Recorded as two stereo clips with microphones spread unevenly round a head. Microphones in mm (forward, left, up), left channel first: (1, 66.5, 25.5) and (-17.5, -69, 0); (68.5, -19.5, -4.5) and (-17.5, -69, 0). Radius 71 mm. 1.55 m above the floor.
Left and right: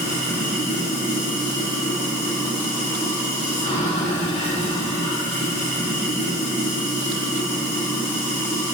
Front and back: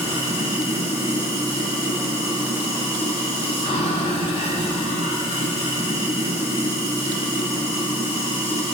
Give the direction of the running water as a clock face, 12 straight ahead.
12 o'clock.